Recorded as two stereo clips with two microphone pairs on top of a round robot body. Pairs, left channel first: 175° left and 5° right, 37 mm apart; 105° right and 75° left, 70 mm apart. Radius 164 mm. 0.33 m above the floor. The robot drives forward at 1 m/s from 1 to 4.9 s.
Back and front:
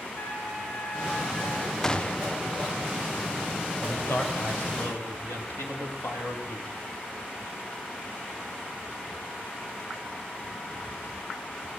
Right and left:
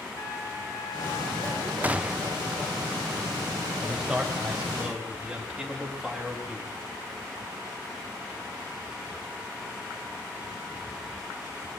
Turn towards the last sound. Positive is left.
turn(degrees=160)